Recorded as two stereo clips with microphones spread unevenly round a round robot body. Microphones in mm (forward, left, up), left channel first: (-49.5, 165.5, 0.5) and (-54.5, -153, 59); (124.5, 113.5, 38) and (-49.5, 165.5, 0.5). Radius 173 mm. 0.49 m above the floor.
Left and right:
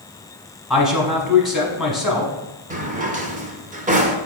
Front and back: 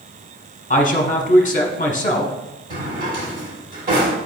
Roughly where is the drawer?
Behind.